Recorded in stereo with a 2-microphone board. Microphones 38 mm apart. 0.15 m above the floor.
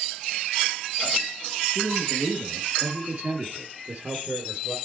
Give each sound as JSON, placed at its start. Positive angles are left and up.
{"t": 1.8, "sound": "a man speaking", "side_deg": -60, "distance_m": 2.5}